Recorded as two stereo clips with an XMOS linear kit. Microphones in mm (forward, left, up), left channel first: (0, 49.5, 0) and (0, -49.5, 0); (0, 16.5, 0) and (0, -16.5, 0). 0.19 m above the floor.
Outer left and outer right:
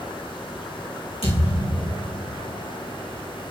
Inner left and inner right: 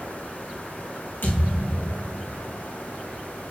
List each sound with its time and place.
1.2 s a thud: 75° left (ahead or behind), 3.5 m